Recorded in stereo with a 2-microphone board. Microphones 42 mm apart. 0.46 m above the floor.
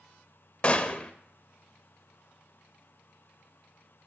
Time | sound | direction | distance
0.6 | a gunshot | 30° left (ahead or behind) | 0.5 m